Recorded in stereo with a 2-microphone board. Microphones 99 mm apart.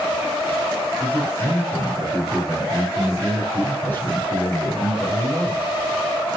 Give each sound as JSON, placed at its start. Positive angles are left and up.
{"t": 1.0, "sound": "a man speaking", "side_deg": 20, "distance_m": 4.0}